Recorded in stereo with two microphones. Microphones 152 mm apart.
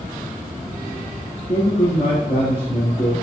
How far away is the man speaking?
About 3 m.